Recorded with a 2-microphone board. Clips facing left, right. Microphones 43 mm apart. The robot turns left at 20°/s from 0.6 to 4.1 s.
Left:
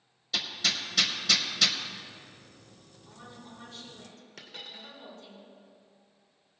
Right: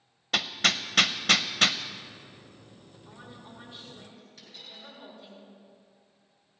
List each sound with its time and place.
0.3 s hammering: 55° right (ahead or behind), 0.5 m; by 1.8 s 40° right (ahead or behind), 0.5 m
3.0 s a woman speaking: 35° right (ahead or behind), 4 m; by 5.4 s 15° right (ahead or behind), 4 m
4.4 s a dropped coin: 75° left (ahead or behind), 2 m